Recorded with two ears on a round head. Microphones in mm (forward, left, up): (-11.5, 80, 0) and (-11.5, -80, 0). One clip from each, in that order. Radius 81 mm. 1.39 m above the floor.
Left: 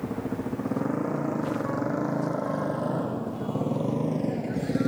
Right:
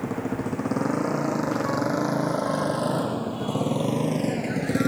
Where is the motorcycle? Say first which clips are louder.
Right 3 dB; 70° right (ahead or behind); by 4.9 s 40° right (ahead or behind).